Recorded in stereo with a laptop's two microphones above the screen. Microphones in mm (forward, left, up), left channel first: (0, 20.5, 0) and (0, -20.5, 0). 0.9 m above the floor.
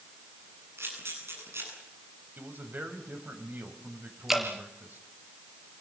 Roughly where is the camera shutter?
Right.